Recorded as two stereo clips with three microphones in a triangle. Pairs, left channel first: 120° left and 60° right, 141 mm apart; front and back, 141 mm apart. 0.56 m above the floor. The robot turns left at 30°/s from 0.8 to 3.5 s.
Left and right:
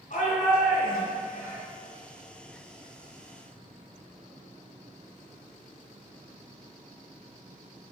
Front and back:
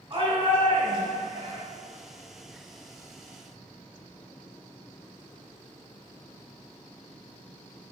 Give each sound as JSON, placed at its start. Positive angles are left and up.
{"t": 0.1, "sound": "a shout", "azimuth_deg": 135, "distance_m": 3.0}